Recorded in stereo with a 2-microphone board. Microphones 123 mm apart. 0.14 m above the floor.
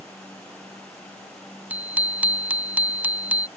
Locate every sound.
1.7 s a bicycle bell: 15° right (ahead or behind)